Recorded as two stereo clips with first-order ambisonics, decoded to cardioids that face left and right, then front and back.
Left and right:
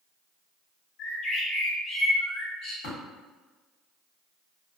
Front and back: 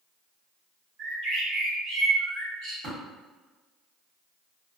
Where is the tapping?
115° left, 1.4 m.